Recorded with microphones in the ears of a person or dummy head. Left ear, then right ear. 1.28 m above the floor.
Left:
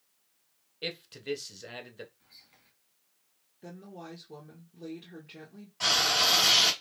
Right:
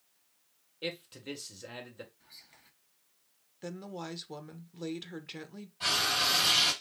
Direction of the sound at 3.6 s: 45° right (ahead or behind).